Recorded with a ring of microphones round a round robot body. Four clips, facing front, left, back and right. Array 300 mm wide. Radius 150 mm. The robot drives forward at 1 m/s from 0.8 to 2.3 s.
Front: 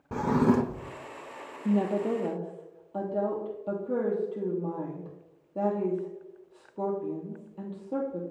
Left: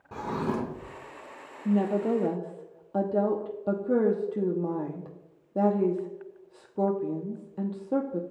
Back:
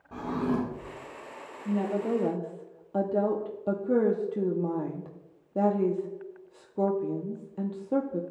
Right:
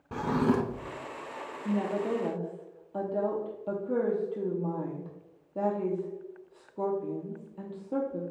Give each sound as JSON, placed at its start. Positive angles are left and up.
{"t": 0.1, "sound": "a drawer", "azimuth_deg": -10, "distance_m": 0.6}
{"t": 1.6, "sound": "a woman speaking", "azimuth_deg": 30, "distance_m": 0.7}